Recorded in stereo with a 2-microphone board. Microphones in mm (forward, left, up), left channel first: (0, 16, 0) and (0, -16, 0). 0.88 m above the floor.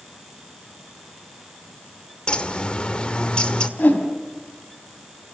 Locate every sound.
2.3 s a bird: 30° left (ahead or behind), 1.5 m
3.8 s a whoosh: 55° left (ahead or behind), 3.5 m